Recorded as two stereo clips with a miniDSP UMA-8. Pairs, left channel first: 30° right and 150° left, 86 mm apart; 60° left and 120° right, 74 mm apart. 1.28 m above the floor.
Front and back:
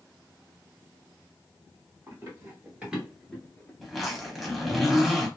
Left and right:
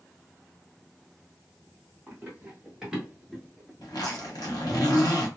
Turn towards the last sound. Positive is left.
turn(degrees=60)